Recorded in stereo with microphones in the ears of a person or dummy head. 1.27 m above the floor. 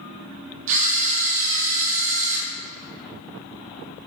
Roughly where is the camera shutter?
Right.